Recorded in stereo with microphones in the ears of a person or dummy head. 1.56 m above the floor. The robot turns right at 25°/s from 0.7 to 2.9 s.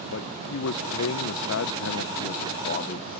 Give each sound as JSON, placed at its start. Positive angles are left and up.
{"t": 0.1, "sound": "a man speaking", "azimuth_deg": 80}